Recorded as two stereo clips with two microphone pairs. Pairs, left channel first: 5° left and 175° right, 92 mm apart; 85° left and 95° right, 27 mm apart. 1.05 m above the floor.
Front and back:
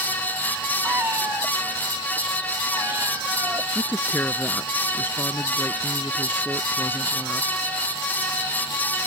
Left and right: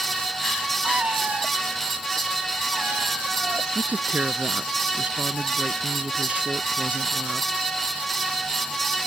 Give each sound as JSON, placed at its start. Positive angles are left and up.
{"t": 0.8, "sound": "a cat meowing", "azimuth_deg": -110}
{"t": 3.8, "sound": "a woman speaking", "azimuth_deg": -65}